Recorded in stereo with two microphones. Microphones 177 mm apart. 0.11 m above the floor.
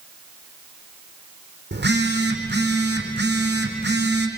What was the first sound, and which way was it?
A phone buzzing, 75° right (ahead or behind).